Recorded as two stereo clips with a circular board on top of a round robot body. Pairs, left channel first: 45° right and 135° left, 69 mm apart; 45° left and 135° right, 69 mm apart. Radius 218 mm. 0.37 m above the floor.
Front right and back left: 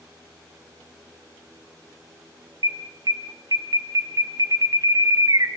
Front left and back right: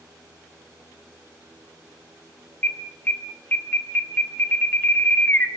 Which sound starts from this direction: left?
An alarm, at 2.6 s.